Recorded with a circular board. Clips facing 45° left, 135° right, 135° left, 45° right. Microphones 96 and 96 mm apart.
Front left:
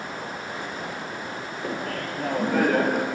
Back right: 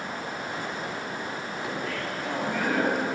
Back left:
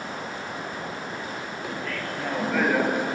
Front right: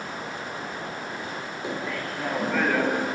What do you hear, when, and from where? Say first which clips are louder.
1.6 s laughter: front left 3 dB, front right 2 dB; 15° left, 2.5 m; by 3.0 s 65° left, 2.5 m